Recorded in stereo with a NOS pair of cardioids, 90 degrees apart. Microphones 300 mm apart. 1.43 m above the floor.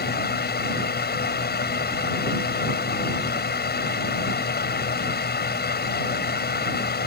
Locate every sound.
0.0 s a fan: 35° left